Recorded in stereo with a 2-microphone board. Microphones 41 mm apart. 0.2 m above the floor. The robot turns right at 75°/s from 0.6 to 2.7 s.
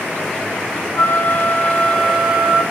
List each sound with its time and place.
0.9 s a flute: 100° left, 1.5 m; by 2.6 s 135° right, 1.5 m